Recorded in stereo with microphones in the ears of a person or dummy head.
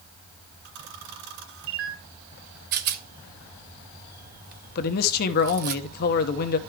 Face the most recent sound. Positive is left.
turn(degrees=55)  # may be behind; listen again after turning